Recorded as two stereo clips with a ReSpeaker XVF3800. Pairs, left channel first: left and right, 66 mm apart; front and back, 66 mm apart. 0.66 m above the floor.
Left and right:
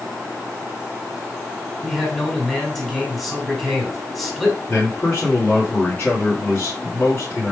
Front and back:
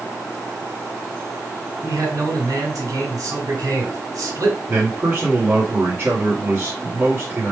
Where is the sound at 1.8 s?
175° left, 2.5 m.